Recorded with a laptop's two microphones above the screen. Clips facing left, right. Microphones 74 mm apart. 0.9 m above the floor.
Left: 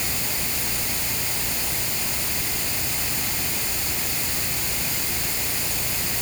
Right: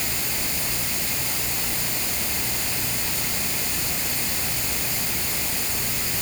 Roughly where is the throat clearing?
I don't hear throat clearing.